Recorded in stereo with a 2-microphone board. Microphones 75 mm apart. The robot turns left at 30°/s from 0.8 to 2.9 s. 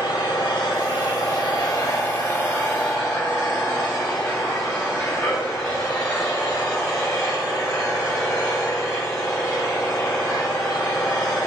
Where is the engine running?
75° left, 5 m; by 11.5 s 15° left, 5 m.